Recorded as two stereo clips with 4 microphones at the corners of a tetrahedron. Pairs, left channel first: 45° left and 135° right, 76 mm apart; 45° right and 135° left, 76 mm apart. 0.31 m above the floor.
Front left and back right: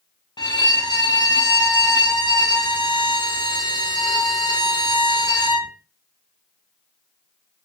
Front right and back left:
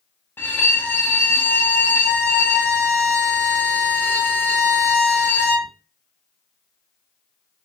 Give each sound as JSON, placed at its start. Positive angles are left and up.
{"t": 0.4, "sound": "a violin", "azimuth_deg": 20, "distance_m": 0.6}